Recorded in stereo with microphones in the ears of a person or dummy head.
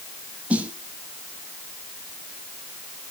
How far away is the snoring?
No snoring in this recording.